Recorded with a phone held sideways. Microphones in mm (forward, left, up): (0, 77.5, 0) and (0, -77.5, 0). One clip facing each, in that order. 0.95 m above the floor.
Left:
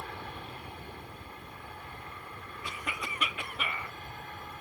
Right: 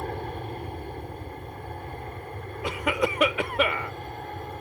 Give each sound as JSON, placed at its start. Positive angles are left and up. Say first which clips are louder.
{"t": 0.0, "sound": "an aircraft", "louder": "right 9 dB", "side_deg": -45}
{"t": 2.6, "sound": "a cough", "louder": "right 15 dB", "side_deg": -80}